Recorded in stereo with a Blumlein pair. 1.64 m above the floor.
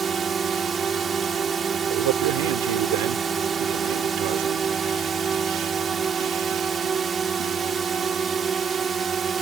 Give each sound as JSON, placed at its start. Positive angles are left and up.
{"t": 0.0, "sound": "a drone", "azimuth_deg": -20}
{"t": 1.9, "sound": "a man speaking", "azimuth_deg": -50}